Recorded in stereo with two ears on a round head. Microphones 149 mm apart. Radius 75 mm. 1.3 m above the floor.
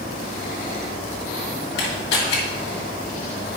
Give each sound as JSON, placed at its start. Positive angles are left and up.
{"t": 1.8, "sound": "a camera shutter", "side_deg": 80, "distance_m": 1.8}